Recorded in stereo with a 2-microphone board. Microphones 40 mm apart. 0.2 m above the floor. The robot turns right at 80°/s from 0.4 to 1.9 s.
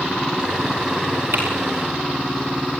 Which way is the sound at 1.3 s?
80° right.